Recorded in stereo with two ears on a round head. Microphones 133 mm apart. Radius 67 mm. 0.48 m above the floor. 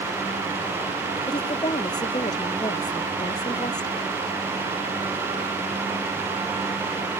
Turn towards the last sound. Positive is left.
turn(degrees=30)  # may be behind; listen again after turning